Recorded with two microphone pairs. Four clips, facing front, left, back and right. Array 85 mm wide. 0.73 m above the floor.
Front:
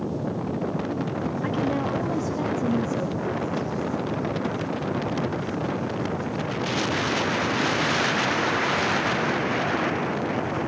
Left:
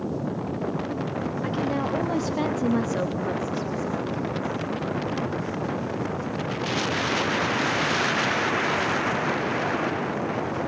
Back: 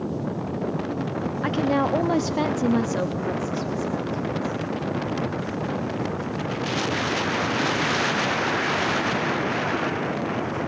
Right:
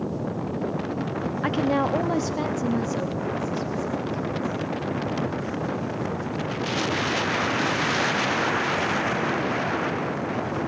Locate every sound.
1.4 s a woman speaking: 120° right, 0.8 m; by 4.6 s 120° left, 1.8 m